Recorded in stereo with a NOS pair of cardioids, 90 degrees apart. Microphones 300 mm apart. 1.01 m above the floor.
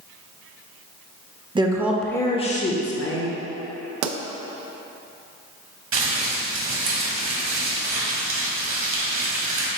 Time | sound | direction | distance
1.6 | a woman speaking | 15° right | 0.8 m
4.0 | a pop | 65° right | 0.5 m
5.9 | crumpling | 45° right | 1.5 m